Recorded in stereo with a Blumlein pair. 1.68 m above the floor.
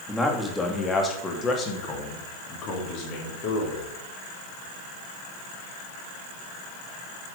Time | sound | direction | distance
0.1 | a man speaking | 5° left | 3 m